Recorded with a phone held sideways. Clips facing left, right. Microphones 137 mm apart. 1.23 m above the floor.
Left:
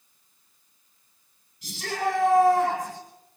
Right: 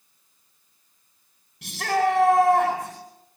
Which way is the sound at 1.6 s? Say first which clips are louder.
Right 6 dB; 80° right.